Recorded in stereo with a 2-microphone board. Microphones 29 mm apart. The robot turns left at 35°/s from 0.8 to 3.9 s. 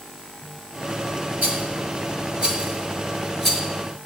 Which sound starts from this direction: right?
A rattle, at 1.4 s.